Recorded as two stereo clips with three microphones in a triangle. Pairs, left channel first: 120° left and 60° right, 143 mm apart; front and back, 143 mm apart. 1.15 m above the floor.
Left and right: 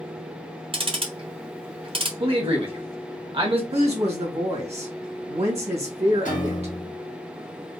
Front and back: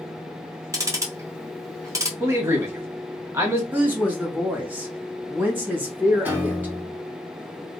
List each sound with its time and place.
0.7 s ticking: 115° right, 1.0 m
2.2 s a man speaking: 110° right, 1.5 m
3.7 s a woman speaking: 105° right, 1.9 m
6.2 s a piano: 105° left, 1.2 m